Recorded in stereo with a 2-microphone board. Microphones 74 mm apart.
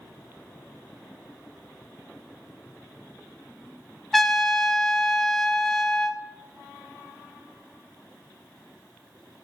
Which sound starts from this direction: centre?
A trumpet, at 4.1 s.